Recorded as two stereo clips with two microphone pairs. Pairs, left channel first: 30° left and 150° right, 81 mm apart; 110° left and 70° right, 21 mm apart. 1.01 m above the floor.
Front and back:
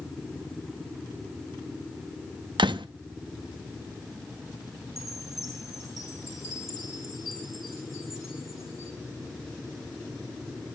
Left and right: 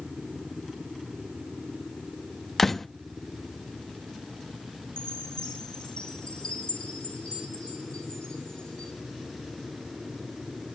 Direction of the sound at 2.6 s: 165° right.